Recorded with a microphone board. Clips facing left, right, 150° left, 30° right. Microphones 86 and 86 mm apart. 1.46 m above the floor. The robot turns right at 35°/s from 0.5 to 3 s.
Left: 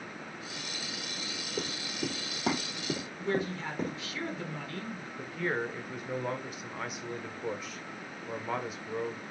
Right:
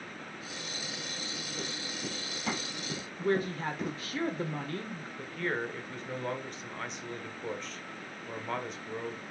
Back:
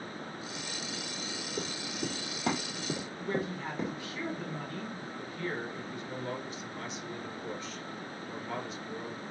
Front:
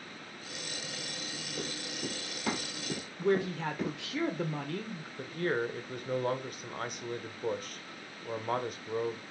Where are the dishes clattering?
No dishes clattering in this recording.